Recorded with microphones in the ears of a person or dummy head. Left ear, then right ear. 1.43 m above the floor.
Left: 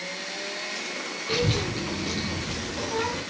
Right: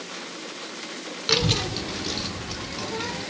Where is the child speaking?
55° right (ahead or behind), 0.6 m; by 3.2 s 10° right (ahead or behind), 2.5 m.